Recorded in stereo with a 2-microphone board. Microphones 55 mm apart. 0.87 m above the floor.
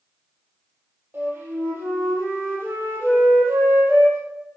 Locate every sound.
1.1 s a flute: 35° right (ahead or behind), 4.5 m